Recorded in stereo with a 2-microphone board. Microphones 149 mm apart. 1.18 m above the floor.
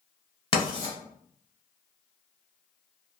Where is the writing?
35° left (ahead or behind), 1.5 m.